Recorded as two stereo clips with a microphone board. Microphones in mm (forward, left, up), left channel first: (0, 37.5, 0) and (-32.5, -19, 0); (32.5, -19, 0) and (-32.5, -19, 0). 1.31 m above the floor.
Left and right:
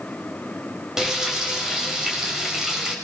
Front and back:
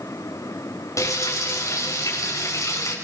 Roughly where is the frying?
Ahead right.